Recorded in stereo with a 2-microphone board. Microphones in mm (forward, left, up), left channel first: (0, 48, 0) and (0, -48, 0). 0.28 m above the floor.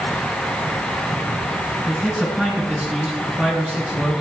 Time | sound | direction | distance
1.9 | a man speaking | 5° right (ahead or behind) | 3.5 m